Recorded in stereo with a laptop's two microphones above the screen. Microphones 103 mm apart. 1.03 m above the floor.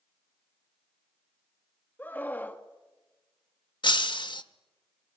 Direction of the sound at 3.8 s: 50° left (ahead or behind).